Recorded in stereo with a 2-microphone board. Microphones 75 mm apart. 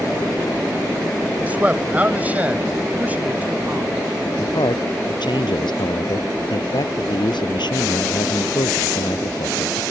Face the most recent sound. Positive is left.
turn(degrees=85)